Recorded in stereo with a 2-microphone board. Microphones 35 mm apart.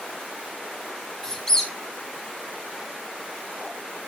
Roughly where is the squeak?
Centre.